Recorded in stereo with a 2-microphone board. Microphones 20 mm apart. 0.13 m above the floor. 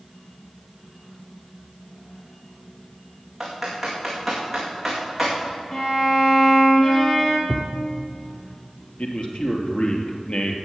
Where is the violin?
20° left (ahead or behind), 2.5 m.